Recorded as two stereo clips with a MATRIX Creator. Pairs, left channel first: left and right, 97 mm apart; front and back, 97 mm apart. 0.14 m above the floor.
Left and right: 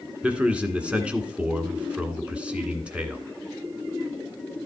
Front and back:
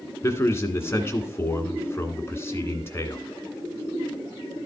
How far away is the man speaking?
About 1.5 m.